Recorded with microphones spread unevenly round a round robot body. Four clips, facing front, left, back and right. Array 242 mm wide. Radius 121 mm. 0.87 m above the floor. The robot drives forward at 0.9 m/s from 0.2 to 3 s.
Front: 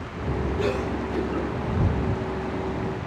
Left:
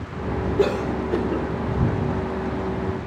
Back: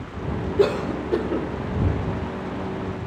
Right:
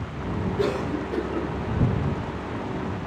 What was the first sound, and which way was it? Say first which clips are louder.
A cough: left 4 dB, back 8 dB; 150° left.